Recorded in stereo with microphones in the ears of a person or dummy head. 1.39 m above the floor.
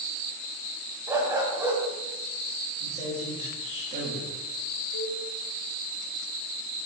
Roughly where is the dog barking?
Centre.